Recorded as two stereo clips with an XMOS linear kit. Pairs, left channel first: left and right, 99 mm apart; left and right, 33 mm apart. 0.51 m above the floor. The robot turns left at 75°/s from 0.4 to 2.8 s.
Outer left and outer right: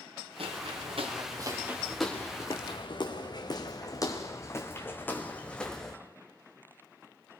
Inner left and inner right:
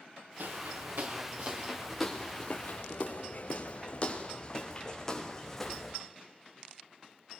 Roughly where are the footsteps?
Right.